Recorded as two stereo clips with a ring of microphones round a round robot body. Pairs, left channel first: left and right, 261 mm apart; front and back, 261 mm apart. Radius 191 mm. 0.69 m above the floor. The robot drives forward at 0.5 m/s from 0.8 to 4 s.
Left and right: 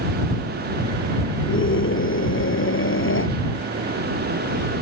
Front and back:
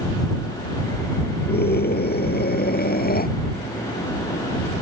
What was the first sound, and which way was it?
A scream, 50° left.